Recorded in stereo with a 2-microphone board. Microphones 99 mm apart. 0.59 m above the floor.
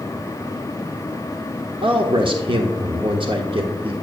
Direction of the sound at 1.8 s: 60° right (ahead or behind).